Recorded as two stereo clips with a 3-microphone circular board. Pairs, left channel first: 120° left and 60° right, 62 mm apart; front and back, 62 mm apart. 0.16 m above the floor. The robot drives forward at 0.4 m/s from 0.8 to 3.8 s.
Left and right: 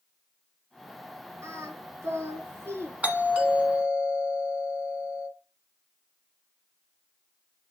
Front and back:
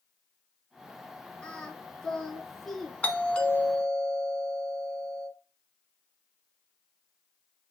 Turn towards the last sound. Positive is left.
turn(degrees=-45)